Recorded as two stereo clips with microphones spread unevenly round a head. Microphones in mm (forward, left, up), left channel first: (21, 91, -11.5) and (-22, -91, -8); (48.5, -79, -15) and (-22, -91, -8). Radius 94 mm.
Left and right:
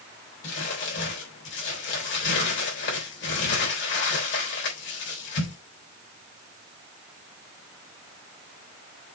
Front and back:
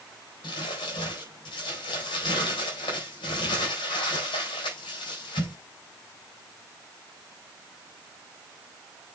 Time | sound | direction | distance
0.4 | crumpling | 45° left | 3.5 m